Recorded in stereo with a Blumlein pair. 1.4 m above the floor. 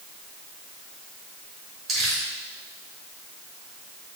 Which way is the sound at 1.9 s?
25° right.